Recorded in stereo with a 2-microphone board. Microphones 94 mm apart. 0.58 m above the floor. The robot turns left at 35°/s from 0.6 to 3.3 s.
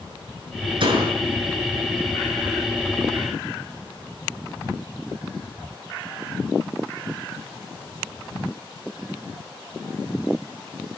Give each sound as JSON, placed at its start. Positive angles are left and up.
{"t": 0.8, "sound": "a door slam", "side_deg": -65, "distance_m": 6.5}